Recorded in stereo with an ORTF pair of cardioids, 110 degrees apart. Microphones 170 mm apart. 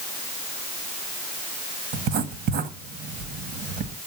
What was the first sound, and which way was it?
Writing, 70° right.